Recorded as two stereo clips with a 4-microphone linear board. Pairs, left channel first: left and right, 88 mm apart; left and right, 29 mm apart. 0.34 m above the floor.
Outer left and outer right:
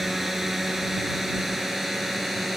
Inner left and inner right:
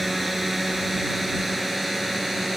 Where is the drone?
Centre (ahead or behind).